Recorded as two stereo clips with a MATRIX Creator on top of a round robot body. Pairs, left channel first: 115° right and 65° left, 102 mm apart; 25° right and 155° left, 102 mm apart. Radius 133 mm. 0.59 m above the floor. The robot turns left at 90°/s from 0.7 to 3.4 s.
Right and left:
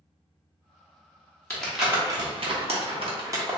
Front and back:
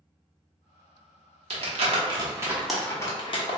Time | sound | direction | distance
1.5 | crumpling | 175° left | 1.0 m